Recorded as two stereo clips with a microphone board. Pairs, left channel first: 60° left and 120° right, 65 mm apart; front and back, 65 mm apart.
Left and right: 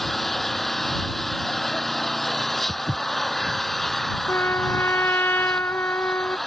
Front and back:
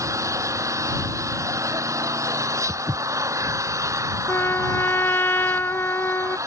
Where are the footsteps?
145° right.